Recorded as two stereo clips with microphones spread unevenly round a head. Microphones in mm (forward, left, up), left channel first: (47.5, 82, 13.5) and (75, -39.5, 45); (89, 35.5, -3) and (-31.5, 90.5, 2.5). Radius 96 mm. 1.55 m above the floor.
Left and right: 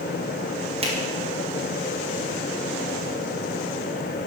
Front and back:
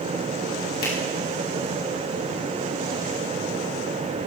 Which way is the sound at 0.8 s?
40° right.